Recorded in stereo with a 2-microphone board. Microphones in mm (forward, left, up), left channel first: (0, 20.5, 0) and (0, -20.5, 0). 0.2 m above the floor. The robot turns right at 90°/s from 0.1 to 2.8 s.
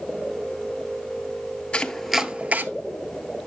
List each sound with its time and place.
1.7 s chopping: 35° left (ahead or behind), 0.6 m; by 2.7 s 50° right (ahead or behind), 0.6 m